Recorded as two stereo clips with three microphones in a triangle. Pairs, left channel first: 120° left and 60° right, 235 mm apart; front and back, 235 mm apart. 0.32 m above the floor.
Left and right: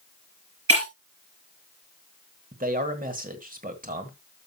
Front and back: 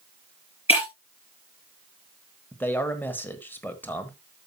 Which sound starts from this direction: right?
A man speaking, at 2.5 s.